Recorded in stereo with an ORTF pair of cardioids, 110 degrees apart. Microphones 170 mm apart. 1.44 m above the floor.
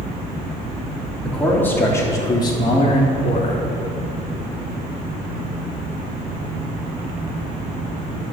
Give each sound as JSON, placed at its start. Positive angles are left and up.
{"t": 1.2, "sound": "a man speaking", "azimuth_deg": 5, "distance_m": 3.5}